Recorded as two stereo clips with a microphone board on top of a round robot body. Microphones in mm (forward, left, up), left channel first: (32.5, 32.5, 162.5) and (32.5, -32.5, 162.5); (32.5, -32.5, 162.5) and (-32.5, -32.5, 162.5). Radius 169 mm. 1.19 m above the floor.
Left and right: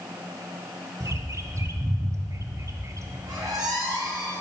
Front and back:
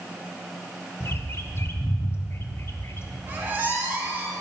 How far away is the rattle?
No rattle in this recording.